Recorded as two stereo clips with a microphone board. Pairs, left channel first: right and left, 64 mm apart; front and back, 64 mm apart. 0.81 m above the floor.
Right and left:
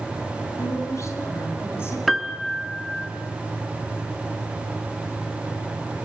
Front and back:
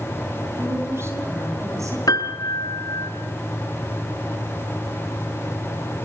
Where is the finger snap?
I don't hear a finger snap.